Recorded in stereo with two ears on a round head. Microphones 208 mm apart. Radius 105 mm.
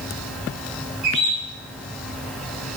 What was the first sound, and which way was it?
A bird, 80° right.